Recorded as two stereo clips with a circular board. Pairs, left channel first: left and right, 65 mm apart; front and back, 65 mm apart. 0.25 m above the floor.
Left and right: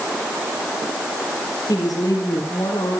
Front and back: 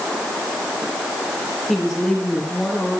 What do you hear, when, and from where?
1.7 s a woman speaking: 85° left, 5 m; by 3.0 s 75° left, 6 m